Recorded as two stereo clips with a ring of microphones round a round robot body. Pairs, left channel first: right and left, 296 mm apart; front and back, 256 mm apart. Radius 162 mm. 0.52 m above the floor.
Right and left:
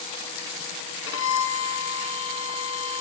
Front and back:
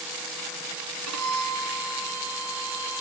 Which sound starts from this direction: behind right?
A violin, at 1.1 s.